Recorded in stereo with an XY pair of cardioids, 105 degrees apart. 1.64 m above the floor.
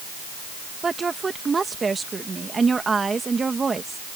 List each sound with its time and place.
0.8 s a woman speaking: 30° right